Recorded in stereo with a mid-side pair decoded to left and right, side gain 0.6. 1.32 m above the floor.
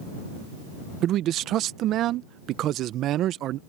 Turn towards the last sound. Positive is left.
turn(degrees=-55)